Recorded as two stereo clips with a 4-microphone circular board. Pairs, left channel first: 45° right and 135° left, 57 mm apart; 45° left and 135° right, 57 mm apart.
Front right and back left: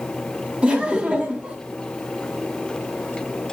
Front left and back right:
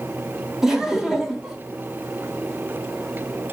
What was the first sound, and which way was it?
Laughter, 160° left.